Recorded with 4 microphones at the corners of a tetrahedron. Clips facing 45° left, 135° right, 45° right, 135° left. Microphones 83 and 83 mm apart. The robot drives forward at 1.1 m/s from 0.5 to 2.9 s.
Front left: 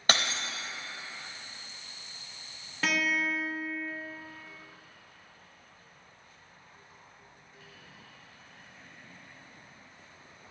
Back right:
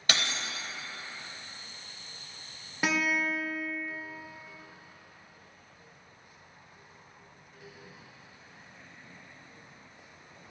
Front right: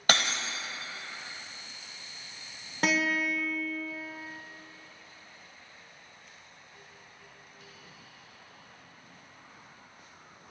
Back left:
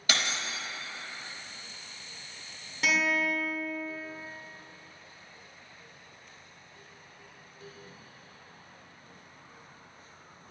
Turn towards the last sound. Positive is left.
turn(degrees=-70)